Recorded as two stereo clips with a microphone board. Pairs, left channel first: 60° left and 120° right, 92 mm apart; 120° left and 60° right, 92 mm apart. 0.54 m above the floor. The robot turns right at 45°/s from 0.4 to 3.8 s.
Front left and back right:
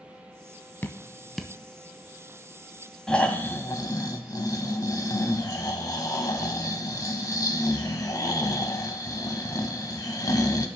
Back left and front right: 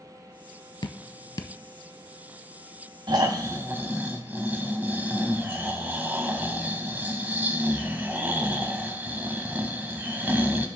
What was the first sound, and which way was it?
Dripping, 125° left.